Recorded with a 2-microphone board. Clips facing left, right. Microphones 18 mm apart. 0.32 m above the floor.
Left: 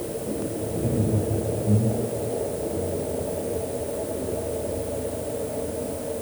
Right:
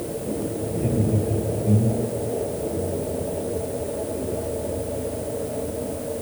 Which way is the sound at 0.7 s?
55° right (ahead or behind).